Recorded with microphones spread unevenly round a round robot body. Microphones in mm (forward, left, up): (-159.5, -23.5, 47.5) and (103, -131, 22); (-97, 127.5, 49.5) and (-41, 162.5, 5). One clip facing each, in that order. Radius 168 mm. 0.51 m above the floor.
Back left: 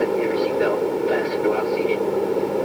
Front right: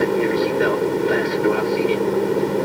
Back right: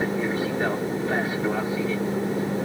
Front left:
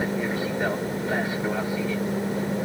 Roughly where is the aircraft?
Right.